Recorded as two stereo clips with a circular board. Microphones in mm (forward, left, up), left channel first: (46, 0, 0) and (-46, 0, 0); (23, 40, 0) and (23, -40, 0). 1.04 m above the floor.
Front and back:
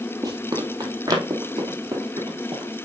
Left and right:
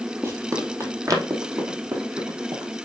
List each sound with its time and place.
0.2 s running footsteps: 140° right, 1.7 m; by 2.7 s 130° right, 5 m